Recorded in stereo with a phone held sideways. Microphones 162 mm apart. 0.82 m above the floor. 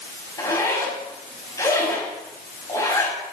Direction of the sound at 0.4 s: 20° left (ahead or behind).